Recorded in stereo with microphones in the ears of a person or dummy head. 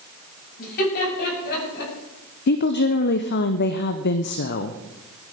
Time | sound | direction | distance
0.6 | laughter | 45° left (ahead or behind) | 7.5 m
2.5 | a woman speaking | 55° left (ahead or behind) | 0.7 m